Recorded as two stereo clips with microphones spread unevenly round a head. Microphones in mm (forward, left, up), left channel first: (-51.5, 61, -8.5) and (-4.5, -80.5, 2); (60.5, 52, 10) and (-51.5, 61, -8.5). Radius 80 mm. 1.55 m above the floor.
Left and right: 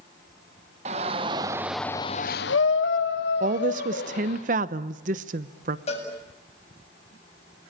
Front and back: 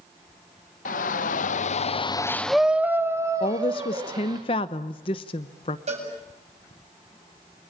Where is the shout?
15° right, 1.8 m; by 4.4 s 125° left, 3.5 m.